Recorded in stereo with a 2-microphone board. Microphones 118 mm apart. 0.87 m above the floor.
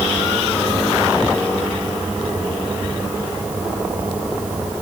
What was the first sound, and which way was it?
Only background noise.